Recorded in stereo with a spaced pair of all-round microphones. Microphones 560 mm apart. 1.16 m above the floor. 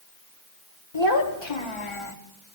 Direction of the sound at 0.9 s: 50° left (ahead or behind).